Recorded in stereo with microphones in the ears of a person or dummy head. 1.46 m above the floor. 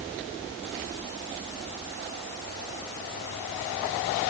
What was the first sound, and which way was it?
Only background noise.